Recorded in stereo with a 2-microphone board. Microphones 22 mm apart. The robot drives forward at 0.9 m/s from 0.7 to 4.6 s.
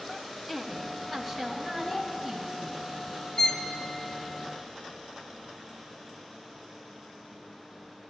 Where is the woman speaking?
5° left (ahead or behind), 1.0 m.